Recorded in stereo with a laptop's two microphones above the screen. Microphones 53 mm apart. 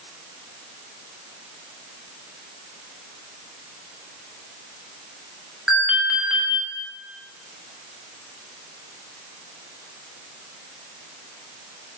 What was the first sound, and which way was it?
An alarm, 10° right (ahead or behind).